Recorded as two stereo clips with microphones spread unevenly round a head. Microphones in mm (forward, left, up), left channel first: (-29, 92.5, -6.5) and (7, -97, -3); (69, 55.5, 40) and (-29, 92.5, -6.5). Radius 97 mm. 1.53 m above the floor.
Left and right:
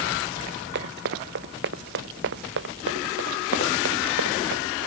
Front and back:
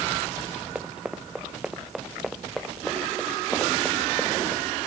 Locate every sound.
0.8 s running footsteps: 115° right; by 4.6 s 100° right